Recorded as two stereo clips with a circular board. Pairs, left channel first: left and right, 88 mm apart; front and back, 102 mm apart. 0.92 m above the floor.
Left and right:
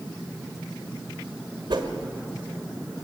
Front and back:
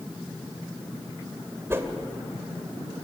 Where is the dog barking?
I don't hear a dog barking.